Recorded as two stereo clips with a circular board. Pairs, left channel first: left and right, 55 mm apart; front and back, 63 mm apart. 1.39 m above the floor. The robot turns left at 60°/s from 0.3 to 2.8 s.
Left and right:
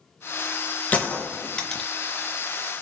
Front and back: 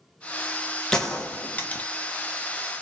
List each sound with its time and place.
0.9 s a gunshot: 65° left, 0.8 m; by 1.9 s 10° left, 0.8 m